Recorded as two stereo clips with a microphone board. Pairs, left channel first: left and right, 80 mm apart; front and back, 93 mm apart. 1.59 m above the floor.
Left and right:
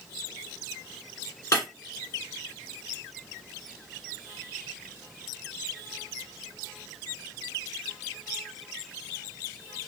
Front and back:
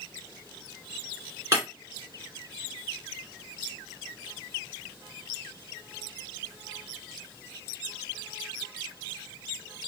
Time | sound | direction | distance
1.5 | breaking glass | 125° left | 2.5 m